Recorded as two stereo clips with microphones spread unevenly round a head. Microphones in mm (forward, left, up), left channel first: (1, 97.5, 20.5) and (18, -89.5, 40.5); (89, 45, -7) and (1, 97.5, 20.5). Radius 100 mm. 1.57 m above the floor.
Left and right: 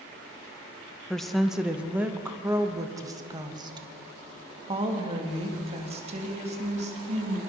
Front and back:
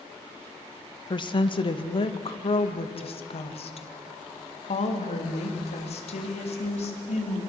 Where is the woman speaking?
10° left, 1.9 m; by 7.4 s 30° right, 4.5 m.